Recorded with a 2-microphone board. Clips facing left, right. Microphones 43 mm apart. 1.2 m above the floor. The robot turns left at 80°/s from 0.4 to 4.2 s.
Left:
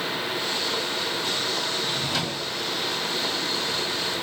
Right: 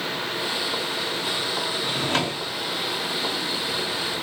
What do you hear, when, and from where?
1.8 s a drawer: 100° right, 0.7 m; by 2.5 s 155° right, 0.7 m